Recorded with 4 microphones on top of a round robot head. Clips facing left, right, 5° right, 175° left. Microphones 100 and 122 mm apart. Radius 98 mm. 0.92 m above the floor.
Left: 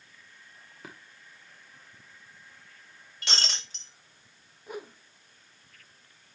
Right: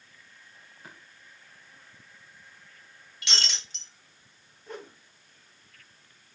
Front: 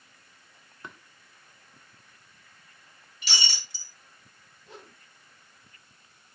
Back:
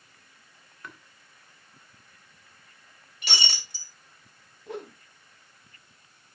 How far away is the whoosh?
About 1.1 m.